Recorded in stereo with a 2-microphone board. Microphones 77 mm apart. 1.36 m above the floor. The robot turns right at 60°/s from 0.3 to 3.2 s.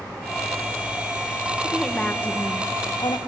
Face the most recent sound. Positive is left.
turn(degrees=80)